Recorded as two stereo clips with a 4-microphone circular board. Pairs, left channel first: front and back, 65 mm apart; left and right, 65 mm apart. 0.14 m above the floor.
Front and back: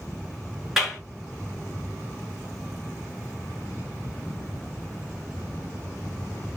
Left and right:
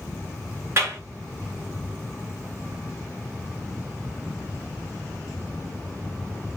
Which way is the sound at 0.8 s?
100° right.